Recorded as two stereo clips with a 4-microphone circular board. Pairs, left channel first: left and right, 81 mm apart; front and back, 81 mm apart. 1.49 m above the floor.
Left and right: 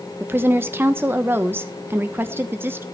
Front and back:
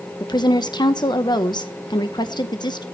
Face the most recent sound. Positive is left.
turn(degrees=-25)